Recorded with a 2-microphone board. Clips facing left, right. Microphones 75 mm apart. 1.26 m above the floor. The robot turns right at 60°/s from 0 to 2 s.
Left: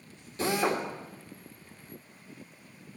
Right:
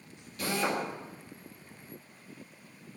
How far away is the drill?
About 1.8 m.